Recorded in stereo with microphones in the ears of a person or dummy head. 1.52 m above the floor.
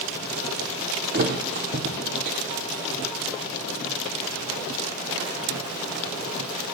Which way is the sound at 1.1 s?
40° right (ahead or behind).